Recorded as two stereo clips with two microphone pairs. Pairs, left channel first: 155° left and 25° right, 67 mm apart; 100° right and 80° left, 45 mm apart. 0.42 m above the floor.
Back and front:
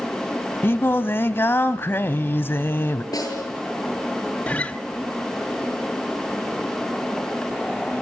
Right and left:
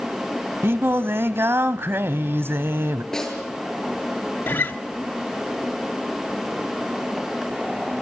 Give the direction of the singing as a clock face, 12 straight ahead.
9 o'clock.